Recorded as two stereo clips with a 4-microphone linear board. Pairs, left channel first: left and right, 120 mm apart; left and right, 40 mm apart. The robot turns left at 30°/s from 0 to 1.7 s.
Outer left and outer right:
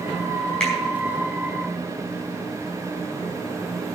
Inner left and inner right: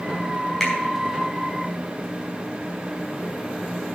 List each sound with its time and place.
0.6 s a finger snap: 10° left (ahead or behind), 4.5 m; by 0.8 s 5° left (ahead or behind), 4.5 m